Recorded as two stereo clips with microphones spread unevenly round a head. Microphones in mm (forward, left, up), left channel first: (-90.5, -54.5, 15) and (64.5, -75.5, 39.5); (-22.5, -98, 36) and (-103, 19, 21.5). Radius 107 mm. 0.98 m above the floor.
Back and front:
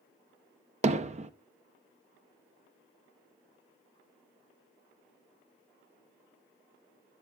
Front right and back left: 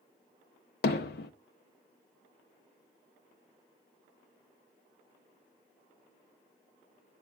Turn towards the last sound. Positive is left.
turn(degrees=-55)